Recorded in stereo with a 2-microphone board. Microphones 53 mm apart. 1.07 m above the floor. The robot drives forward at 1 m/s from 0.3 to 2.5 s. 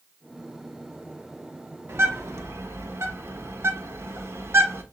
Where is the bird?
60° right (ahead or behind), 1.0 m; by 4.8 s 65° right (ahead or behind), 1.0 m.